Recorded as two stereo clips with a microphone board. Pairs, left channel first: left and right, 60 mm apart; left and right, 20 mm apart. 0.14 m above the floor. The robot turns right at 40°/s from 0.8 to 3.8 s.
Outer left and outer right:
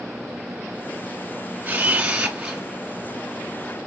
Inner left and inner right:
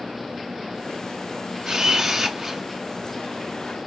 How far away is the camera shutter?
About 1.4 m.